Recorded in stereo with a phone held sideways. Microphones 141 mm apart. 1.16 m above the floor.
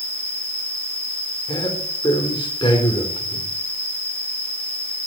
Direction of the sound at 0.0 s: 45° right (ahead or behind).